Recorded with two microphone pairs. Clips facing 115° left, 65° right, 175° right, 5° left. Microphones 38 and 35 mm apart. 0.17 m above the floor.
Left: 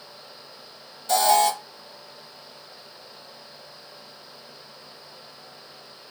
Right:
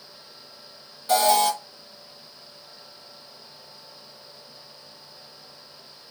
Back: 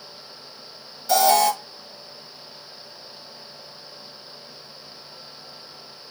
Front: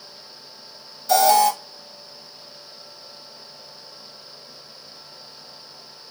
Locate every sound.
1.1 s an alarm: 110° right, 2.5 m